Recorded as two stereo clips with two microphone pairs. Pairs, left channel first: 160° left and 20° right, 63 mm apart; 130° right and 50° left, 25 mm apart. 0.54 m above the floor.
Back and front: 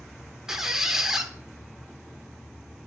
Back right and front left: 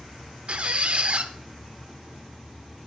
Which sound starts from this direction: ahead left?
A squeak, at 0.5 s.